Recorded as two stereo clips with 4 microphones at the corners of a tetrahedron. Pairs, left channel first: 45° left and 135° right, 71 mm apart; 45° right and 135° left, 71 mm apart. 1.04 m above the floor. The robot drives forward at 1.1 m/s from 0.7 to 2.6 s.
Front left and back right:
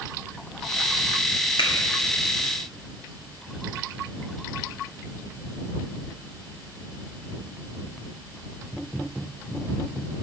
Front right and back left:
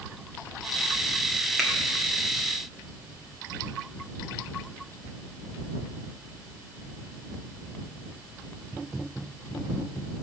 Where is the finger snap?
45° left, 1.5 m; by 1.7 s 50° left, 1.4 m.